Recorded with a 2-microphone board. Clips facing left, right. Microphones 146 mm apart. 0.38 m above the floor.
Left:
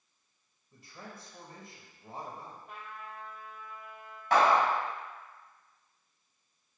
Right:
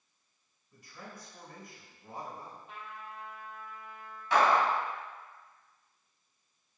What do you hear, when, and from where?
0.7 s a man speaking: 30° left (ahead or behind), 1.6 m
2.7 s a trumpet: 55° left (ahead or behind), 3 m
4.3 s a clap: 55° left (ahead or behind), 2.5 m